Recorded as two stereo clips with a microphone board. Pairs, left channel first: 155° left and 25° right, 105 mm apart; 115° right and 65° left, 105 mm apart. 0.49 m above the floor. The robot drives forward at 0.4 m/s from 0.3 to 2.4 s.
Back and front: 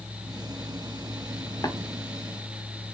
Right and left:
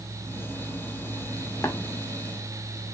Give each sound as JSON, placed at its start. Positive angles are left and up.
{"t": 1.6, "sound": "tapping", "azimuth_deg": -165, "distance_m": 0.8}